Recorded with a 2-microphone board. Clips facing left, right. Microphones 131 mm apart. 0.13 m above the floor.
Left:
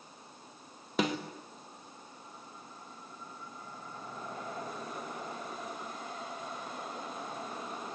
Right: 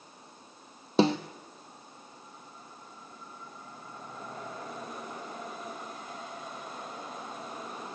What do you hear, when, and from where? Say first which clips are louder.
1.0 s a snare drum: right 7 dB; 30° right (ahead or behind), 1.8 m